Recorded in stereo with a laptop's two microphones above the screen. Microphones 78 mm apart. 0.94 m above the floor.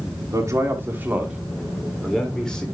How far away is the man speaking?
About 2.0 m.